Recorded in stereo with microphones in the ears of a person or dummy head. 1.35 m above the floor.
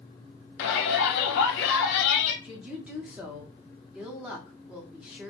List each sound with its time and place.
0.6 s a shout: 65° left (ahead or behind), 0.9 m
2.4 s a woman speaking: 5° right (ahead or behind), 0.8 m